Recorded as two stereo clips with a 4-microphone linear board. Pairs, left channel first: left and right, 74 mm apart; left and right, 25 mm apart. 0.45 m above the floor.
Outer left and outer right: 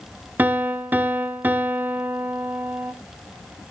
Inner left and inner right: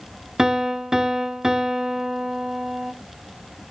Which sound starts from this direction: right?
A piano, at 0.4 s.